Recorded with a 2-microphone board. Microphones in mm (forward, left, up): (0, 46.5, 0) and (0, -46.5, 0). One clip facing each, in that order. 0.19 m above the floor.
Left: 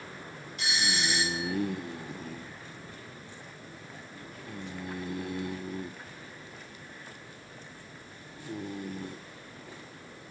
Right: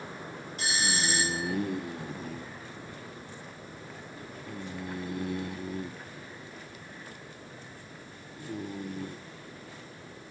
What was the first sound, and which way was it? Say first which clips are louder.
A doorbell: even; 35° right (ahead or behind).